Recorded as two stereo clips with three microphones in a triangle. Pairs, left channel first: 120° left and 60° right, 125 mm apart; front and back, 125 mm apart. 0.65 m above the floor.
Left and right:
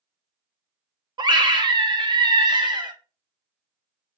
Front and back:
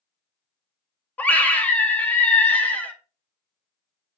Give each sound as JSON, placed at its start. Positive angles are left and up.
{"t": 1.2, "sound": "a scream", "azimuth_deg": -70, "distance_m": 0.6}